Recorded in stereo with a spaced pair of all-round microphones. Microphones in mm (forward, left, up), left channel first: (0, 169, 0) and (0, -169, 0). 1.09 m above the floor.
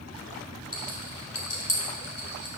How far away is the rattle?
About 2.5 m.